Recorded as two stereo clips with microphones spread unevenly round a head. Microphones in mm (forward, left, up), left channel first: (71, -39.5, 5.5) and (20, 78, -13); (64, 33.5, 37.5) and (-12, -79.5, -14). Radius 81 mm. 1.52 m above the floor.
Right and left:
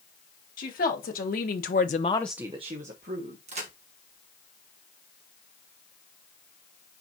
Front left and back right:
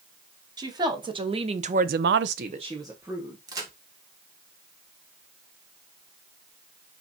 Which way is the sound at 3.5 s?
165° left.